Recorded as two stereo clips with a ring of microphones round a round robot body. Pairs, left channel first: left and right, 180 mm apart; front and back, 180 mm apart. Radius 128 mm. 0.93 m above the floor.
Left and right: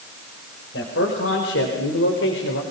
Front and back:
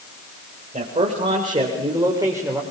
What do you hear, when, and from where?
0.7 s a man speaking: 125° left, 4 m; by 2.6 s 105° left, 3.5 m